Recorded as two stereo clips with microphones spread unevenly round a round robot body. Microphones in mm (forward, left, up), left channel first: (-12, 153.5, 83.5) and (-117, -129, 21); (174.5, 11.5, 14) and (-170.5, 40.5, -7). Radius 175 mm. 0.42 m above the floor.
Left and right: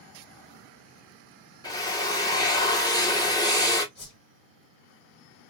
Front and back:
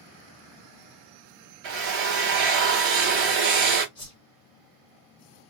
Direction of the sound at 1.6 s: 155° left.